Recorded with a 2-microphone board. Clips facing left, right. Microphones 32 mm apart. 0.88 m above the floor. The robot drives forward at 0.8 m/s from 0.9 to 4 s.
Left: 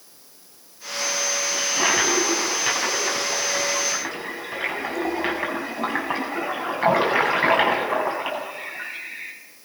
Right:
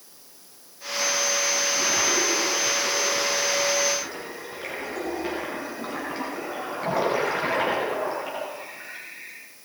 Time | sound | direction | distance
1.5 | a toilet flushing | 75° left (ahead or behind) | 7.5 m